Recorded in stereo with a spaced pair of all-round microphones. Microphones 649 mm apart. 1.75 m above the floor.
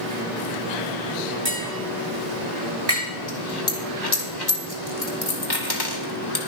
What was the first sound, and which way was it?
Tapping, 85° right.